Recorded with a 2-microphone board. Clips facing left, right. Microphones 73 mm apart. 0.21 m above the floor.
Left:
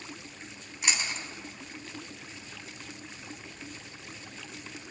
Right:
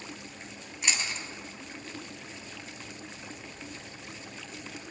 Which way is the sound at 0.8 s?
5° left (ahead or behind).